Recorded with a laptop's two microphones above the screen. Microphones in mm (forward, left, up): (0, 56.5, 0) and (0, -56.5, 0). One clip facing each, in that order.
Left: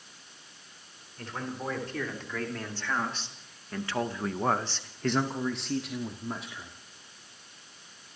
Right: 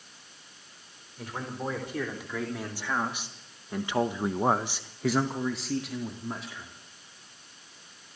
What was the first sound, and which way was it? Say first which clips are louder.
A man speaking: right 1 dB; 10° right (ahead or behind).